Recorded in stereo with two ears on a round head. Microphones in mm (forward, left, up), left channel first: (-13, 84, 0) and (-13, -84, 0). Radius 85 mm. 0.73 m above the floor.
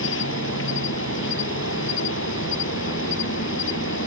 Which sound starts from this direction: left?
An insect, at 0.0 s.